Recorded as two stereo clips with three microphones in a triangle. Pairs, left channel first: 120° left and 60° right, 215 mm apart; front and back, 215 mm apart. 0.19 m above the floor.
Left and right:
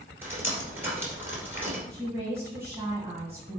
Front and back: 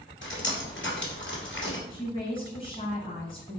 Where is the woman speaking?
Straight ahead, 1.7 m.